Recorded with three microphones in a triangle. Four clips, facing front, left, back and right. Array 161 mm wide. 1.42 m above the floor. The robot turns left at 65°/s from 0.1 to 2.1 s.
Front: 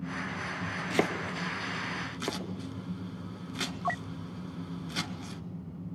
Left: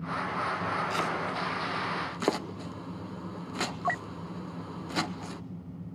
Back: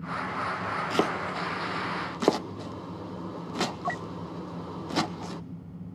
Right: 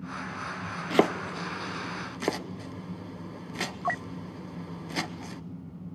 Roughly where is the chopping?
Right.